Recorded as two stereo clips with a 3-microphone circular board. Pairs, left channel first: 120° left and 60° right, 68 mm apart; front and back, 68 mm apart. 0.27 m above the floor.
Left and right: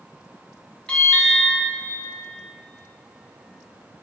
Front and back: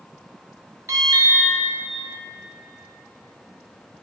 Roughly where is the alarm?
Behind.